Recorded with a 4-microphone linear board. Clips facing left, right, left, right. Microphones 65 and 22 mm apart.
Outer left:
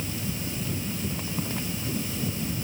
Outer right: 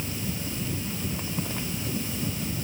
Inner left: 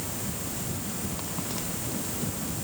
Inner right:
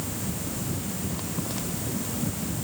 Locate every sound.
Only background noise.